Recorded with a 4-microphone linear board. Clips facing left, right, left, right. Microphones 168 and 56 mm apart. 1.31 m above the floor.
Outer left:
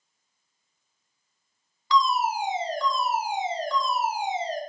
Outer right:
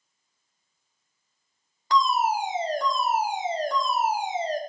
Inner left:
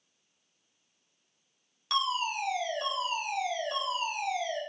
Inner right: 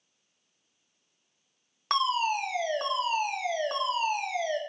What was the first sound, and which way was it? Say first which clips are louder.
A fire alarm: outer right 1 dB, inner right 4 dB; 50° right (ahead or behind).